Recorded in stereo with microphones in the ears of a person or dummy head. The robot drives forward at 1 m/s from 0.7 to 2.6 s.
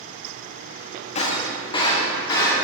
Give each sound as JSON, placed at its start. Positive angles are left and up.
{"t": 1.1, "sound": "breaking glass", "side_deg": 40, "distance_m": 1.5}